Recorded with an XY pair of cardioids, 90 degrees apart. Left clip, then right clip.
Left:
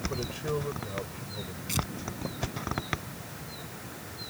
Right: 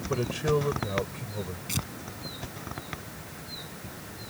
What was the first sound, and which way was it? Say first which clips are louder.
A man speaking: right 6 dB; 45° right.